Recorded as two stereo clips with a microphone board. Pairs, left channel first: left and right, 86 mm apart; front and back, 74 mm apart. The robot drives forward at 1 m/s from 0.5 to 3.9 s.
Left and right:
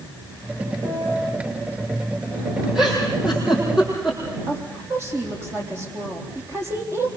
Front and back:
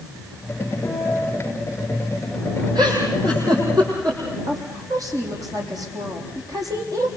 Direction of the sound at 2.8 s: 170° right.